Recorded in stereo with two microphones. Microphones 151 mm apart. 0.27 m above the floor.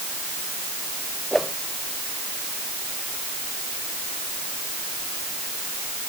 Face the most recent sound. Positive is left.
turn(degrees=0)  # may be behind; listen again after turning